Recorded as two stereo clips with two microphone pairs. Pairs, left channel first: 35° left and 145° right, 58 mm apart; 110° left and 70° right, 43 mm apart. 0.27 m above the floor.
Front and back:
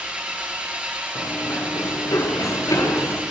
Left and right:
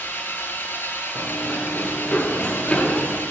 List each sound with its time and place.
0.0 s an engine running: 150° left, 2.5 m
1.1 s running footsteps: 20° left, 3 m; by 3.2 s 45° left, 4.5 m